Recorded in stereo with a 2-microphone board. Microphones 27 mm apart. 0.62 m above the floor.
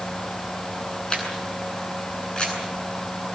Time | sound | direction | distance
1.1 | a camera shutter | 30° left (ahead or behind) | 8.5 m